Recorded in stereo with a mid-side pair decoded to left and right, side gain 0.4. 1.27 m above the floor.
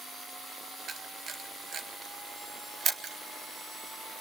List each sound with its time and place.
0.9 s a camera shutter: 60° right, 1.6 m